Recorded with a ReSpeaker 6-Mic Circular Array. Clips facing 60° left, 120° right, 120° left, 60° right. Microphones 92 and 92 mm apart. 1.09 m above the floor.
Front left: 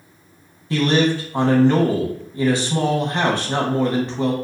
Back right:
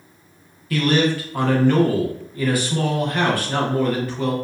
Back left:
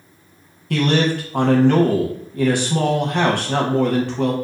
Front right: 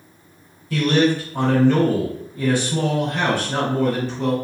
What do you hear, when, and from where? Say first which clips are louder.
0.7 s a man speaking: front left 1 dB, front right 1 dB; 125° left, 0.7 m